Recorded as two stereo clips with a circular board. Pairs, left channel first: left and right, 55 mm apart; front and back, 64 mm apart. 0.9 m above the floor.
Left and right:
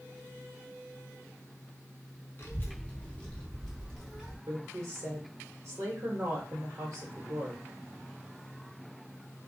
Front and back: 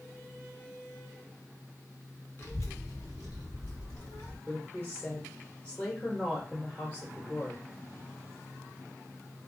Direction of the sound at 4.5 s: 70° right.